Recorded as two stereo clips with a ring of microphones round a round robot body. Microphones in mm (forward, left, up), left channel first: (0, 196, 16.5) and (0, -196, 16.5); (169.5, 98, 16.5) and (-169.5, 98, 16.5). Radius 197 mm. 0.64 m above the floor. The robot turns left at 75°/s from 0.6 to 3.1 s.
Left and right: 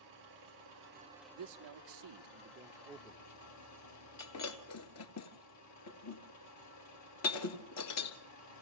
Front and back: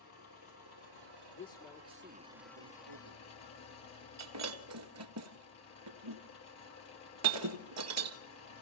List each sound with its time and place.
0.0 s an engine running: 130° right, 8 m; by 8.6 s 40° left, 8 m
1.4 s a man speaking: 65° right, 1.2 m; by 3.2 s 165° left, 1.2 m
4.2 s breaking glass: 140° left, 1.7 m